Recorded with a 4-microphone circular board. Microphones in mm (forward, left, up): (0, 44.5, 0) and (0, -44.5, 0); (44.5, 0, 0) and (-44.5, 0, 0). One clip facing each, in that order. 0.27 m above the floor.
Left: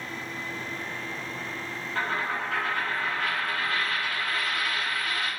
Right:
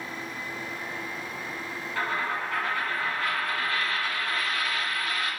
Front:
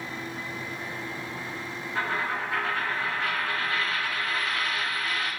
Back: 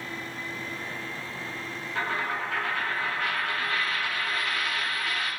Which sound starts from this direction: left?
A dropped coin, at 1.9 s.